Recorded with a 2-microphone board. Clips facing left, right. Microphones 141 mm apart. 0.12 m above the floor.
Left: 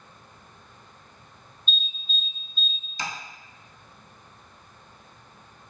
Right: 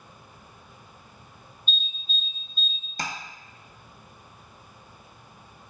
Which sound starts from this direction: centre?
An alarm, at 1.7 s.